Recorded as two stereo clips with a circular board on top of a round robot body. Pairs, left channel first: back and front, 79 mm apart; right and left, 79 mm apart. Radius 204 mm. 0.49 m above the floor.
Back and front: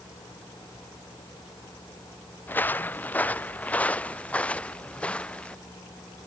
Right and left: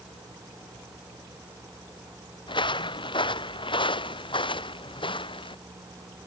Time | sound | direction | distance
2.5 | footsteps | 110° right | ?